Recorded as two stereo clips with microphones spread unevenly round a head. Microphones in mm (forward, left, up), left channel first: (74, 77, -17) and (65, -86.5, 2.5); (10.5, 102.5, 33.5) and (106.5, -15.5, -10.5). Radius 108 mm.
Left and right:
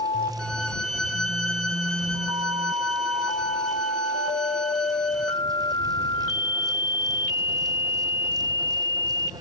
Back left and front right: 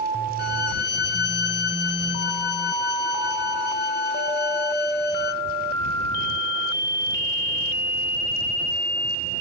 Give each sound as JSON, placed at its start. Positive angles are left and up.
{"t": 0.4, "sound": "a violin", "azimuth_deg": 175}